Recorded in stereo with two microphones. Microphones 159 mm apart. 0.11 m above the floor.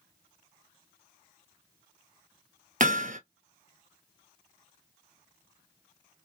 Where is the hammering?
55° right (ahead or behind), 0.7 m.